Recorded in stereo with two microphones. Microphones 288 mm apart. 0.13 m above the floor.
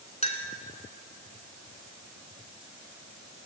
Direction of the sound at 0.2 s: 25° left (ahead or behind).